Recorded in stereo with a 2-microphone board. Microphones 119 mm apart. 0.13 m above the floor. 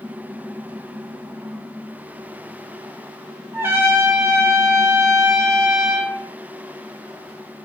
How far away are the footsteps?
I don't hear footsteps.